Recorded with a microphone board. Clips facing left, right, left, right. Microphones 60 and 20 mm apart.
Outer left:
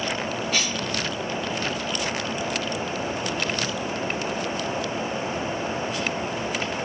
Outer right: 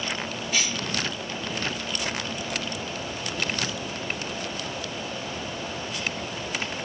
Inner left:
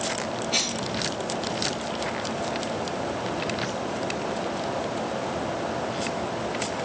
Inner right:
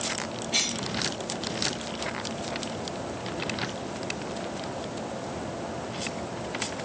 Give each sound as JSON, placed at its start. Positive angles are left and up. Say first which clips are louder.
{"t": 0.5, "sound": "a cough", "louder": "outer right 2 dB, even", "side_deg": 50, "distance_m": 2.0}